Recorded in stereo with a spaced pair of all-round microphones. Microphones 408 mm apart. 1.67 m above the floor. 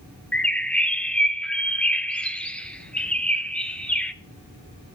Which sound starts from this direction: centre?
A bird, at 0.3 s.